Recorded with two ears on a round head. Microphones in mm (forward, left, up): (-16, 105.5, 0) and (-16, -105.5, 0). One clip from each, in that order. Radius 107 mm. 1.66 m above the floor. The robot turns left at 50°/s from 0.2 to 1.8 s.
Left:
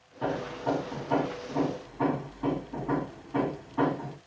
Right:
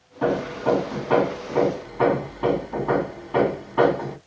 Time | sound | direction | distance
0.2 | hammering | 15° right | 1.6 m